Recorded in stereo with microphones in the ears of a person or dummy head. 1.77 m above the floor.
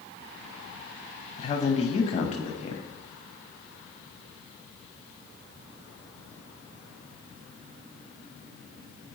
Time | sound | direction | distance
1.4 | a man speaking | 35° left (ahead or behind) | 0.8 m